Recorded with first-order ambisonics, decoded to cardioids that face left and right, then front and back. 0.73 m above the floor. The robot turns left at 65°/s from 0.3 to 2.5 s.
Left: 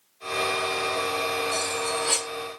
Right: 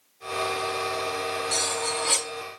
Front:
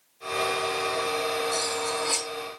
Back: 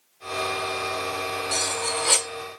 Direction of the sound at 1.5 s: 140° right.